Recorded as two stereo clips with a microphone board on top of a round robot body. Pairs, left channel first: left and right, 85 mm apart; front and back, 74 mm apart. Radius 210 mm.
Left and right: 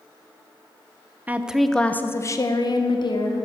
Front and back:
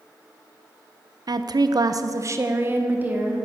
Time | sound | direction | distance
1.3 | a woman speaking | 160° right | 0.7 m